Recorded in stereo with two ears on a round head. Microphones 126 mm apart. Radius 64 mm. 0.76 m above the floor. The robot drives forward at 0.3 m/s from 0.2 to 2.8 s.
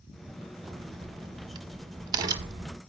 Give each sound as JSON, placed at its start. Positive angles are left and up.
{"t": 0.6, "sound": "a crack", "side_deg": -45, "distance_m": 1.0}